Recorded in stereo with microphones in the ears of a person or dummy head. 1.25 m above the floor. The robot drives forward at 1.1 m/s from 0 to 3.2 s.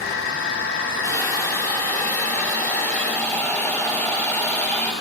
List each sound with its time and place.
1.0 s a hiss: 20° left (ahead or behind), 4 m; by 4.9 s 15° left (ahead or behind), 6.5 m